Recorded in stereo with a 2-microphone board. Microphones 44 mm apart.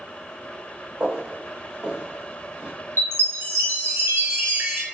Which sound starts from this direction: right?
A chime, at 3.0 s.